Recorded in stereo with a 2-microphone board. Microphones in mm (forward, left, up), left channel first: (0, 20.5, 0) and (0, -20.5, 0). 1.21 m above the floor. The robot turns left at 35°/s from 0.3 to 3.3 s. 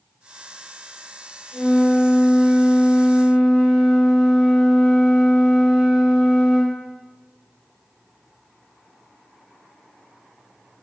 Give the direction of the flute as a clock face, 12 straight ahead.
11 o'clock.